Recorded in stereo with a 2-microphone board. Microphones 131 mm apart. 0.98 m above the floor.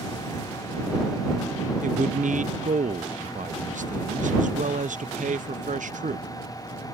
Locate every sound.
1.8 s a man speaking: 75° right (ahead or behind)